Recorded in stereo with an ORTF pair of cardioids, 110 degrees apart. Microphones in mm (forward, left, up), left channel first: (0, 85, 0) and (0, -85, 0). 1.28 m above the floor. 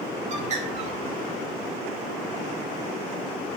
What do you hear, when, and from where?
0.3 s a bird: 45° right, 2 m